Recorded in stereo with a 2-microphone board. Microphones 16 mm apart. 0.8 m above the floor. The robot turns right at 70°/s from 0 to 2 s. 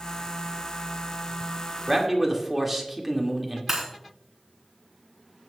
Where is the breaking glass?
20° right (ahead or behind), 3.5 m.